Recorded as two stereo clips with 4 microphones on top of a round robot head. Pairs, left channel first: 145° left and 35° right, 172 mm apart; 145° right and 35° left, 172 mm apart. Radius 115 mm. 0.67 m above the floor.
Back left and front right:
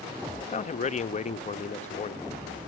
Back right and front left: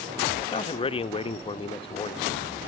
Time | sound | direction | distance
0.4 | a man speaking | 170° left | 0.7 m